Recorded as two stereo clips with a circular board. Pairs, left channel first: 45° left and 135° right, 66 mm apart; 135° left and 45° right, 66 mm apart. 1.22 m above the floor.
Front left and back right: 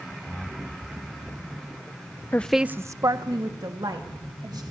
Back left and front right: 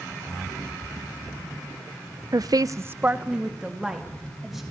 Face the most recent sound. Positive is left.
turn(degrees=-130)